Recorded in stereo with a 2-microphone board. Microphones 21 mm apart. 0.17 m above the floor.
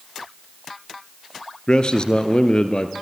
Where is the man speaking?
40° left (ahead or behind), 2.5 m.